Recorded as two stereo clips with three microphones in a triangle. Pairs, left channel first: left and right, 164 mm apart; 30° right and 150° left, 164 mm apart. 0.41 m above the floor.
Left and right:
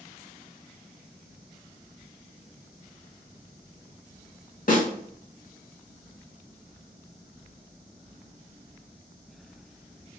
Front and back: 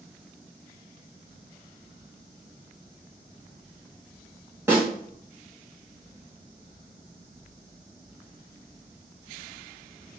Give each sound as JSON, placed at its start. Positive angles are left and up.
{"t": 4.7, "sound": "a snare drum", "azimuth_deg": 80, "distance_m": 1.3}